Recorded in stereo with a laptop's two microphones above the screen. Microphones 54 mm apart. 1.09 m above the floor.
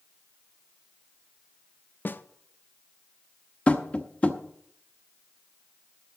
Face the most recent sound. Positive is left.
turn(degrees=25)  # may be behind; listen again after turning